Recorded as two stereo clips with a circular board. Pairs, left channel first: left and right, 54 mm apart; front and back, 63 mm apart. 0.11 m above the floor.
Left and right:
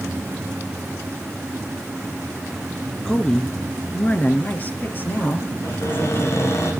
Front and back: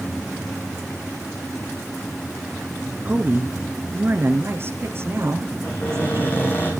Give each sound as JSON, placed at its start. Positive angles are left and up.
{"t": 3.0, "sound": "a woman speaking", "azimuth_deg": 180, "distance_m": 1.2}
{"t": 5.6, "sound": "a cupboard door", "azimuth_deg": 55, "distance_m": 6.0}